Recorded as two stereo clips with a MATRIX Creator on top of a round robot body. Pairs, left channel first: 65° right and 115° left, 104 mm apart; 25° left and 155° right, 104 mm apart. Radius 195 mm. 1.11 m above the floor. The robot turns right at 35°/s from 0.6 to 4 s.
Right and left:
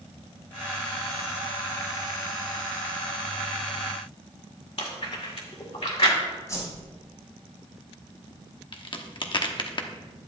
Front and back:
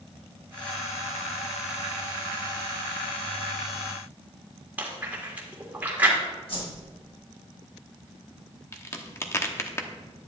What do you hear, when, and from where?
4.8 s chewing: 85° right, 2.0 m
6.5 s a whoosh: 5° right, 4 m
8.7 s a crack: 40° right, 1.0 m